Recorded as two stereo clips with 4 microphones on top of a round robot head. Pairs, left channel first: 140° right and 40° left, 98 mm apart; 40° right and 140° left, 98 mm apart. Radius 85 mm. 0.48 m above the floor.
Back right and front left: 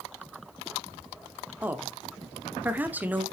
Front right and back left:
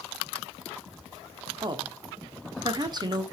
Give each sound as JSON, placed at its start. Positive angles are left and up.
{"t": 1.6, "sound": "a woman speaking", "azimuth_deg": 105, "distance_m": 1.0}